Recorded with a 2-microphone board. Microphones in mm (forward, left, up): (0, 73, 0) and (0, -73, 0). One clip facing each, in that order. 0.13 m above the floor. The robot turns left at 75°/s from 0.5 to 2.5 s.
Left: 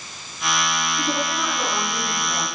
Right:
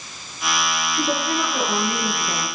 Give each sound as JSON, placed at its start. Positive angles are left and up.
{"t": 1.0, "sound": "a woman speaking", "azimuth_deg": -40, "distance_m": 7.5}